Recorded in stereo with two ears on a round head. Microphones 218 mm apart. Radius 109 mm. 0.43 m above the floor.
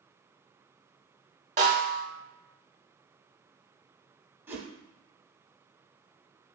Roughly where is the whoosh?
Centre.